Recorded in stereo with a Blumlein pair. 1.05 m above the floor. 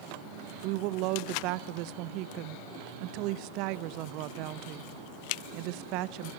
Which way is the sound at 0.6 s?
40° right.